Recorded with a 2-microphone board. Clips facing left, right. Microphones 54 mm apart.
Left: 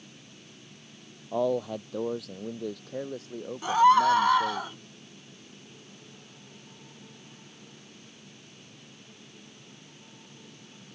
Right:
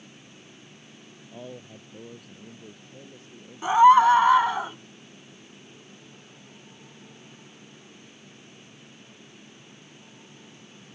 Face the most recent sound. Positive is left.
turn(degrees=-20)  # may be behind; listen again after turning